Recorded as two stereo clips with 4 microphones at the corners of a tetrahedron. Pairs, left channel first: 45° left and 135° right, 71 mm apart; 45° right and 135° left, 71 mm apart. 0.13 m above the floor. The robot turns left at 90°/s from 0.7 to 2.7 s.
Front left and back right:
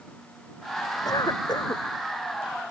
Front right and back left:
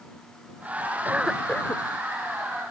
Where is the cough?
75° left; by 1.8 s straight ahead.